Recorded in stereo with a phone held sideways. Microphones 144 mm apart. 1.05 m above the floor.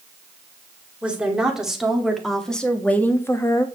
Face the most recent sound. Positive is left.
turn(degrees=25)  # may be behind; listen again after turning